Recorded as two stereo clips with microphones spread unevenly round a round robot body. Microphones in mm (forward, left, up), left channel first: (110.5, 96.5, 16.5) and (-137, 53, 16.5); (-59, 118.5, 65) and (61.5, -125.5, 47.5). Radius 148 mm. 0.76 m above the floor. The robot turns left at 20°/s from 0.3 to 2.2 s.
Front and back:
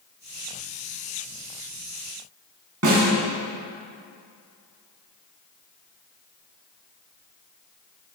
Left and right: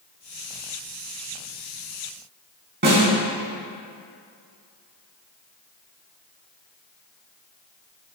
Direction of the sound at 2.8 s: 120° right.